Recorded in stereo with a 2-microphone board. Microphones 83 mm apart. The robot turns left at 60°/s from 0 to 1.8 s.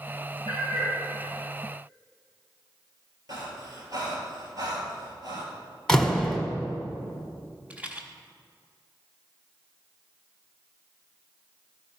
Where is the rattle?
20° right (ahead or behind), 1.0 m.